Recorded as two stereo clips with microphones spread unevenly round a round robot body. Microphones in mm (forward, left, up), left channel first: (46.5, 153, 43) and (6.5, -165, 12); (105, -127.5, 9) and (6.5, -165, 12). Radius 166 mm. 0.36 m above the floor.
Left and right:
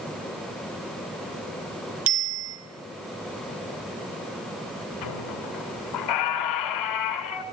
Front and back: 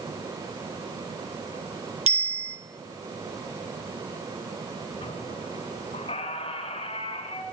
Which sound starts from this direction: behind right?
A bicycle bell, at 2.1 s.